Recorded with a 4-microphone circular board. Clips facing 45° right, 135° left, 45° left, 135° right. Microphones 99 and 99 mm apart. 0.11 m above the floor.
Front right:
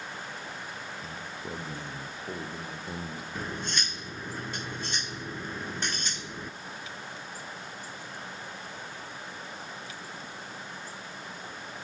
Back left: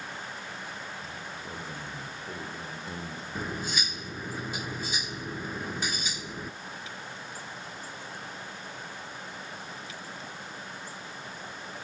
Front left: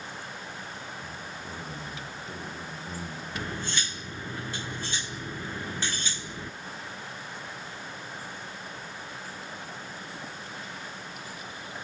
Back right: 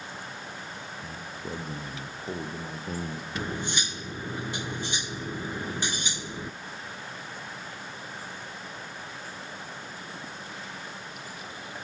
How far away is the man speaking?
About 3.5 m.